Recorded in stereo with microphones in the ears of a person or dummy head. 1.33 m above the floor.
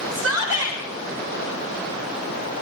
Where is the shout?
75° right (ahead or behind), 6.5 m.